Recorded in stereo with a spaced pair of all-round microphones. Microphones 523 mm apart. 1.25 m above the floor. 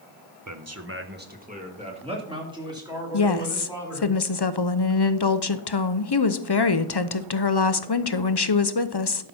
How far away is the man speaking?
About 0.9 m.